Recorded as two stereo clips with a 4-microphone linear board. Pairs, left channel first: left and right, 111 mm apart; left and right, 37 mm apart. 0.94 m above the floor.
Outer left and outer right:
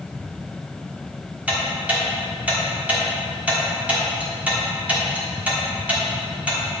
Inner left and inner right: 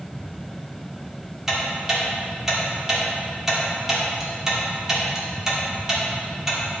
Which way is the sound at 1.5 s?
15° right (ahead or behind).